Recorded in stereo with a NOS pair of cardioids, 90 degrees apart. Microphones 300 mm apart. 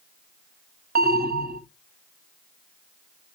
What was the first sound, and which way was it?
An alarm, 30° right.